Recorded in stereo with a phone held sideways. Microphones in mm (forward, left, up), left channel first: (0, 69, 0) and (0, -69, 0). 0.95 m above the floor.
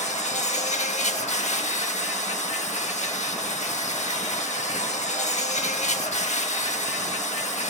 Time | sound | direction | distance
0.0 | an insect | 55° left (ahead or behind) | 1.2 m